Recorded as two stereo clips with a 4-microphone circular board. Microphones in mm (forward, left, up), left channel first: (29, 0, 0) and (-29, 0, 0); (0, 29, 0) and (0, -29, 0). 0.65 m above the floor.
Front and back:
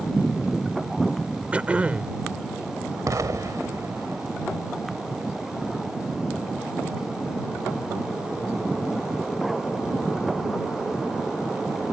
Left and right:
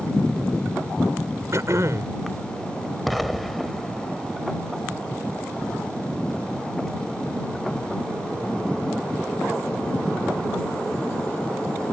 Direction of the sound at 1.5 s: 115° right.